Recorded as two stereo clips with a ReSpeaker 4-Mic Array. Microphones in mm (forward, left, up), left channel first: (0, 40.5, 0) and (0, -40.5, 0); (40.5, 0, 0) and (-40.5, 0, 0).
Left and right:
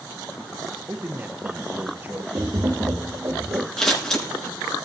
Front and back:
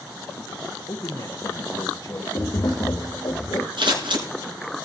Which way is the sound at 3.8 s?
170° left.